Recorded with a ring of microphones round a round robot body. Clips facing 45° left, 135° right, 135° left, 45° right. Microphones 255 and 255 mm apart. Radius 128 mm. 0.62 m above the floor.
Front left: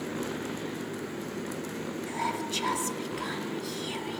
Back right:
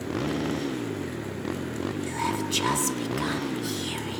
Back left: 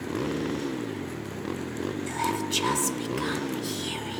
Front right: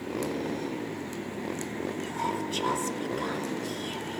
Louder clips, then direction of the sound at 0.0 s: Back right 5 dB, back left 2 dB; 160° right.